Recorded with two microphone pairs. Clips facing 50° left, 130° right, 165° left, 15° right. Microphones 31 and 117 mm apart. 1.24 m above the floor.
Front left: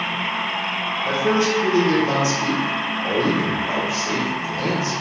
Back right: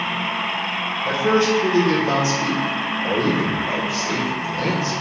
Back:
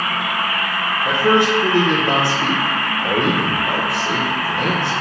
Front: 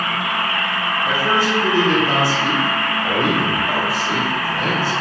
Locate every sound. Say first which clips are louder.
1.1 s a man speaking: back right 2 dB, back 5 dB; 150° left, 1.4 m